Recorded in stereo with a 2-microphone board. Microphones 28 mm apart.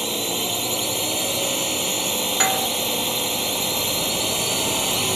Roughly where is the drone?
Centre.